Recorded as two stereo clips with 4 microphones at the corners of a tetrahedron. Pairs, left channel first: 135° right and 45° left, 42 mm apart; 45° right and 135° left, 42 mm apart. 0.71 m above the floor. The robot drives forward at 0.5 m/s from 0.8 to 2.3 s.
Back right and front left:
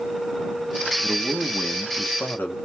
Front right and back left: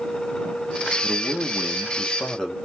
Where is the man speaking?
65° right, 0.9 m; by 2.5 s 115° right, 0.9 m.